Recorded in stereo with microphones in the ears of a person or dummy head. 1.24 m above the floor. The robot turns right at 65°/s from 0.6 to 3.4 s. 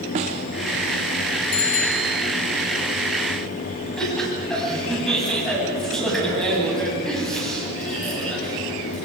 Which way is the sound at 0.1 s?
25° right (ahead or behind).